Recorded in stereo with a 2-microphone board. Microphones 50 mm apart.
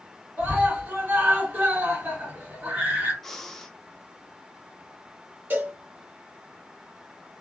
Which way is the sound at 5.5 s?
40° right (ahead or behind).